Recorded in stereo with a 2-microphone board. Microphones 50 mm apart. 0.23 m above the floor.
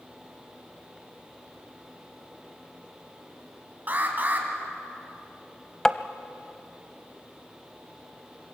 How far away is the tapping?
About 0.7 m.